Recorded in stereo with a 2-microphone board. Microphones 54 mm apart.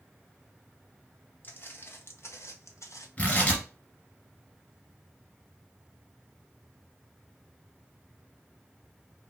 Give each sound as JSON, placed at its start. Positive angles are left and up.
{"t": 1.4, "sound": "footsteps", "side_deg": 35, "distance_m": 1.3}
{"t": 3.2, "sound": "tearing paper", "side_deg": 25, "distance_m": 1.9}